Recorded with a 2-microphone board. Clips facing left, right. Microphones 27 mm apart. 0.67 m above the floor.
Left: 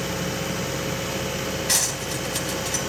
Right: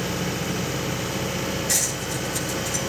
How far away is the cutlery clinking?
About 2.5 m.